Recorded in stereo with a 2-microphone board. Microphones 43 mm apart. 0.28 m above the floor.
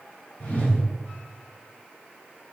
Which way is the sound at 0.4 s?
40° left (ahead or behind).